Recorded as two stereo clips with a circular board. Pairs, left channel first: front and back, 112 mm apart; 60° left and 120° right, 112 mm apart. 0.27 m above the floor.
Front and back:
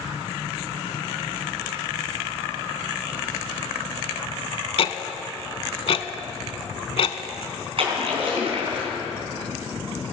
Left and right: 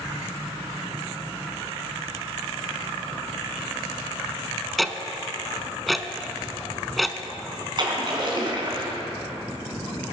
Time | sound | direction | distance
4.8 | ticking | 30° right | 0.6 m
7.8 | a splash | 160° right | 3 m